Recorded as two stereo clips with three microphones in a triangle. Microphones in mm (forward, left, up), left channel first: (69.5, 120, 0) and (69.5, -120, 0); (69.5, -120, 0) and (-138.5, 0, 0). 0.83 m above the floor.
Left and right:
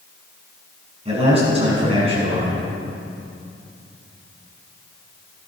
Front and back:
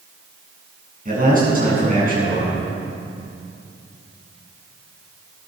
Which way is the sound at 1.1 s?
155° right.